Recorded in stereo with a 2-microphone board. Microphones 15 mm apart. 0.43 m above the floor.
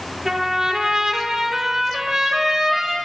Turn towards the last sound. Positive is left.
turn(degrees=-45)  # may be behind; listen again after turning